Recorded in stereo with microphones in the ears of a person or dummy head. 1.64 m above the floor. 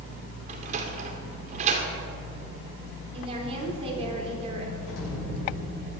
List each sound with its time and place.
0.5 s a sliding door: 40° right (ahead or behind), 2.5 m
3.1 s a woman speaking: 30° right (ahead or behind), 4.5 m
4.9 s an explosion: 75° left (ahead or behind), 7 m